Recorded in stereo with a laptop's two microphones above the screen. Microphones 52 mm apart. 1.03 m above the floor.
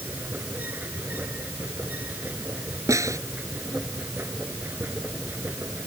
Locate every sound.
0.0 s a machine running: 35° right (ahead or behind)
2.9 s a snare drum: 85° right